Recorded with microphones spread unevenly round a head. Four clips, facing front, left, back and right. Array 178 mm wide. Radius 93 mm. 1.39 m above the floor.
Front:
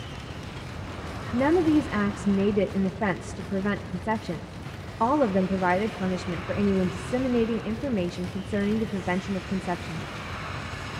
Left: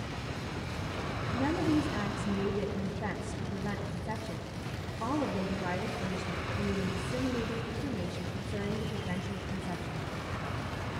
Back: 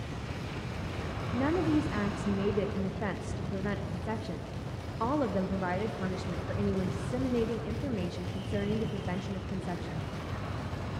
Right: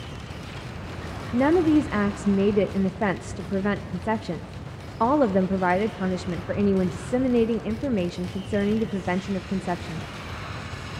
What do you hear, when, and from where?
1.3 s a woman speaking: 60° right, 0.5 m